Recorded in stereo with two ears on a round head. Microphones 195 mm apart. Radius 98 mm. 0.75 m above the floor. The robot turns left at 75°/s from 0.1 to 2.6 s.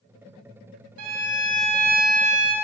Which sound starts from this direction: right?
A violin, at 1.0 s.